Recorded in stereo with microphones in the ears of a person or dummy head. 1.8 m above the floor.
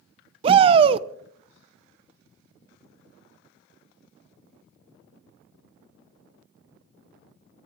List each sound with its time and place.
0.4 s a shout: 40° right (ahead or behind), 0.6 m